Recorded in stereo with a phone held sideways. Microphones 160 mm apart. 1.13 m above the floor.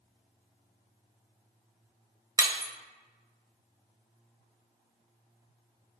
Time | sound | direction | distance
2.4 | breaking glass | 20° right (ahead or behind) | 0.7 m